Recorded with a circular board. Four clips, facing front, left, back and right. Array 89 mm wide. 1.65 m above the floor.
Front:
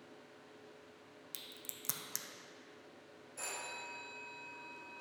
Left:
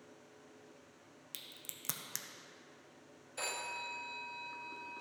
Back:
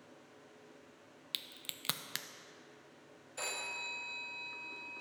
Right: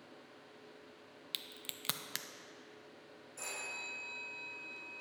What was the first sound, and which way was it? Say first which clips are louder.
A crack: right 6 dB, back 5 dB; 145° right.